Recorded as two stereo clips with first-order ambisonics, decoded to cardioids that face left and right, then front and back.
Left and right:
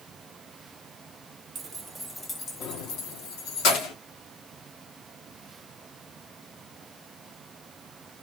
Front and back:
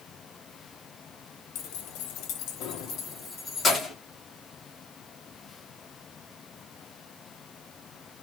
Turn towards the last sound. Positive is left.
turn(degrees=75)